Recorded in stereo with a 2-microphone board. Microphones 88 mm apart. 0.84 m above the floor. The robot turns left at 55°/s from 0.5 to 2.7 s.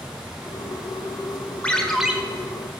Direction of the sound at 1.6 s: 15° left (ahead or behind).